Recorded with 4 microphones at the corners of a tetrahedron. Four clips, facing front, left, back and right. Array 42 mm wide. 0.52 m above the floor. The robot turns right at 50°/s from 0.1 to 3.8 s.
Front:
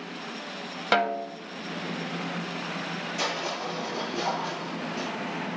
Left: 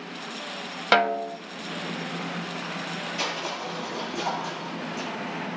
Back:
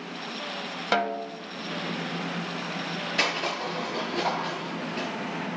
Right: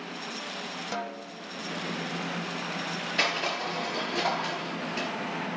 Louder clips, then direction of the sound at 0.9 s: Left 14 dB, front 2 dB; 80° left.